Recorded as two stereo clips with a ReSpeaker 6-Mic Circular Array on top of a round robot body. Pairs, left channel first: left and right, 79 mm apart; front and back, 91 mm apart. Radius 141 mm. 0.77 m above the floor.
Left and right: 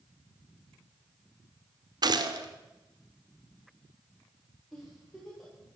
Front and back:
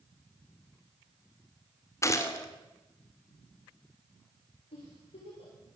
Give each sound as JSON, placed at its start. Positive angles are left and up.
{"t": 2.0, "sound": "a gunshot", "azimuth_deg": -60, "distance_m": 2.0}
{"t": 4.7, "sound": "a giggle", "azimuth_deg": 0, "distance_m": 9.0}